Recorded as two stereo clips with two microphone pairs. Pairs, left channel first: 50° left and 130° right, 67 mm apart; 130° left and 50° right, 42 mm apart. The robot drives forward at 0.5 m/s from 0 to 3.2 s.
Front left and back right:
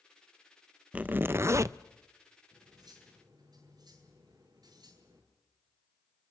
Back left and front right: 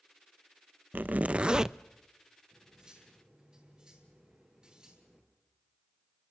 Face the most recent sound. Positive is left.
turn(degrees=-115)